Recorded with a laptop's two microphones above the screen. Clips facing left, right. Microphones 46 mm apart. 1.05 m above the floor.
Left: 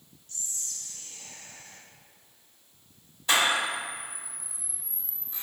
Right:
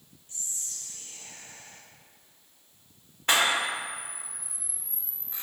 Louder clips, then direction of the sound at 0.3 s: Left 1 dB; 20° right (ahead or behind).